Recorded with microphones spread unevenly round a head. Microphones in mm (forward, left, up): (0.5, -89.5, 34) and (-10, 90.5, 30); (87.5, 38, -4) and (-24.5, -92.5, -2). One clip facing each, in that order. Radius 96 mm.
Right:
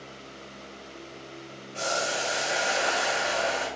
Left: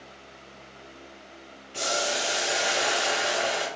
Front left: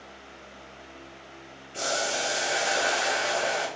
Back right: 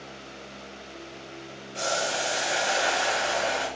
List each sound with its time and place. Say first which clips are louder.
1.7 s boiling: left 1 dB, back right 1 dB; 105° left, 1.7 m